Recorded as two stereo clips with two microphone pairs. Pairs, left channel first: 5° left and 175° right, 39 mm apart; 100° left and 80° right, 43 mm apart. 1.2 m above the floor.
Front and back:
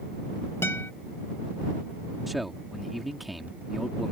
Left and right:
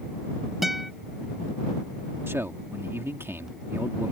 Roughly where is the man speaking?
Right.